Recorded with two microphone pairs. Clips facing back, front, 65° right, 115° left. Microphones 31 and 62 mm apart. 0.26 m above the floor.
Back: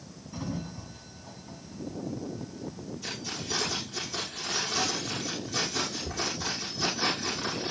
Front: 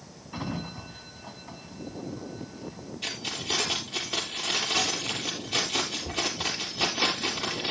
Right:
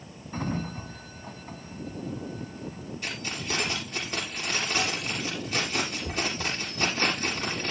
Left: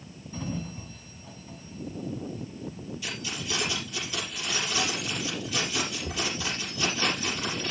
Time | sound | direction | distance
0.3 | a sliding door | 45° right | 0.9 m
3.0 | keys jangling | 20° right | 4 m